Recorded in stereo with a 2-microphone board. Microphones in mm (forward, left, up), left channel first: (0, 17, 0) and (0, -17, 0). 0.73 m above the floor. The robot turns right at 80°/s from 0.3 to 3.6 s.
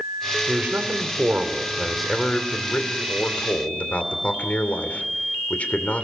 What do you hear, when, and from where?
0.5 s a man speaking: 125° right, 2.5 m; by 6.0 s 130° left, 2.5 m